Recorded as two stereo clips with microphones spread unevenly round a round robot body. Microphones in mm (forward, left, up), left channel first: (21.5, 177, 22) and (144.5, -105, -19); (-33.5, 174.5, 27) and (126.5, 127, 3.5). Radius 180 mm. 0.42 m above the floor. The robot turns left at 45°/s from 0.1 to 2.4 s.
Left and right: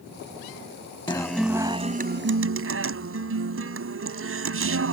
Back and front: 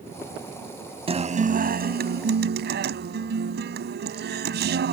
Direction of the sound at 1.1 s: 35° left.